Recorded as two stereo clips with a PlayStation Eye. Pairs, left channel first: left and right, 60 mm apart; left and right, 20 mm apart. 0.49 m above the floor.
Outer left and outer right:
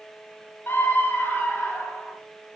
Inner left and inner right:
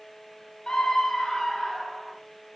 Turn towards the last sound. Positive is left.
turn(degrees=35)  # may be behind; listen again after turning